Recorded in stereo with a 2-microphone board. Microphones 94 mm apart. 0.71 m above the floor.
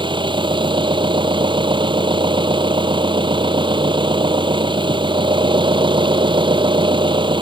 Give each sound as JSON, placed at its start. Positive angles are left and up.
{"t": 0.0, "sound": "an engine running", "side_deg": -60}